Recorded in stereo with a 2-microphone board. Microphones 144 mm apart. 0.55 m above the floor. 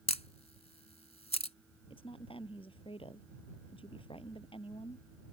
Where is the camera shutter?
50° left (ahead or behind).